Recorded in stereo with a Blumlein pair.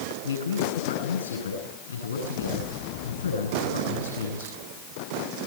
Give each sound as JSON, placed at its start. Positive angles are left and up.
{"t": 0.2, "sound": "a man speaking", "azimuth_deg": 70, "distance_m": 9.5}